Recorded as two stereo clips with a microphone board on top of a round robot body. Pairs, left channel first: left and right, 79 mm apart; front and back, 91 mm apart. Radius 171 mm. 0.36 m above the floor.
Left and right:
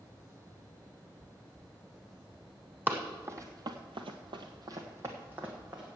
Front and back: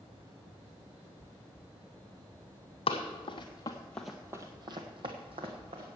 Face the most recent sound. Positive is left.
turn(degrees=-160)